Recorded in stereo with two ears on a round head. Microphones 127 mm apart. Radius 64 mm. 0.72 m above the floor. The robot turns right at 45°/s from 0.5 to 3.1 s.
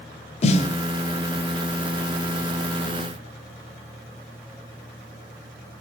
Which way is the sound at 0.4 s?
45° left (ahead or behind).